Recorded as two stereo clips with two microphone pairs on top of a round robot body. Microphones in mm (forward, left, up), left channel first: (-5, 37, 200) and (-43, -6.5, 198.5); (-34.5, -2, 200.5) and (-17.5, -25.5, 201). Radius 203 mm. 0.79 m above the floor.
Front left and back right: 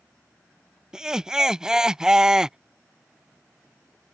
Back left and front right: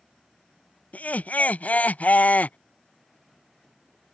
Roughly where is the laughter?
Behind left.